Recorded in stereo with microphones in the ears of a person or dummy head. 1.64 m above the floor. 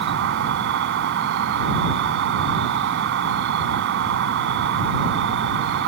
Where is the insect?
65° right (ahead or behind).